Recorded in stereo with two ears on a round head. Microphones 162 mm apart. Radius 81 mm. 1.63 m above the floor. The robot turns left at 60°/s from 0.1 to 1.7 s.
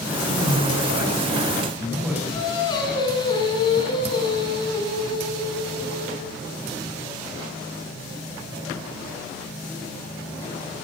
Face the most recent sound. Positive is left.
turn(degrees=25)  # may be behind; listen again after turning